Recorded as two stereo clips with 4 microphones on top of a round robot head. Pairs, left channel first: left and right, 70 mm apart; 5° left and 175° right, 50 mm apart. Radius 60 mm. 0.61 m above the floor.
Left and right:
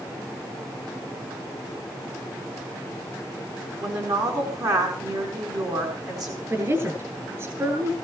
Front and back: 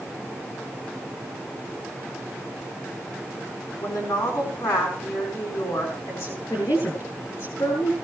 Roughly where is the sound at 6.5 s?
Ahead right.